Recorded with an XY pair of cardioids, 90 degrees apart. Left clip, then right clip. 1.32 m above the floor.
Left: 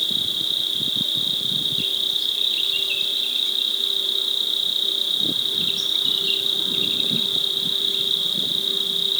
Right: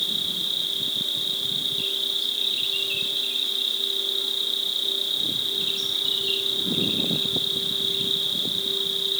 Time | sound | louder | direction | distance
0.0 | an insect | left 3 dB | 35° left | 5.5 m